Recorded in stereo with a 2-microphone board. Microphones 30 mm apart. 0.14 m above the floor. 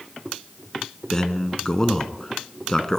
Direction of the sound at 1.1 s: 20° left (ahead or behind).